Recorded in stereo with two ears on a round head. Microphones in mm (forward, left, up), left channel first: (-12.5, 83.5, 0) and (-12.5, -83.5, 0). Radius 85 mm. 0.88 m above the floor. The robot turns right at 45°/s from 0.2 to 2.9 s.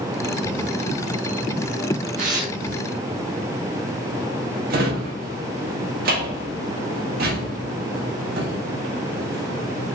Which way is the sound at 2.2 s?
45° right (ahead or behind).